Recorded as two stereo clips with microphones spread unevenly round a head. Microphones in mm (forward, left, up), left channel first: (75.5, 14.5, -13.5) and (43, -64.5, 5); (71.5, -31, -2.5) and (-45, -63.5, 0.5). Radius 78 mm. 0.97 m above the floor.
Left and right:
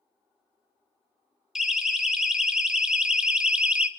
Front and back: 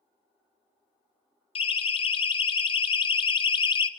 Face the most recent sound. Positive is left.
turn(degrees=-30)